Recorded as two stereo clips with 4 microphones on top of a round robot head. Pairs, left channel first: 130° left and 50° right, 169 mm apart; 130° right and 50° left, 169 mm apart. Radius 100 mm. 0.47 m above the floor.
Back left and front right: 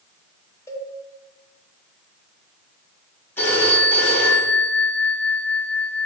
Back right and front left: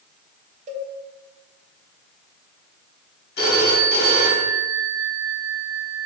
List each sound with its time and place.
0.7 s a cowbell: 60° left, 1.2 m
3.4 s a phone ringing: 155° right, 2.5 m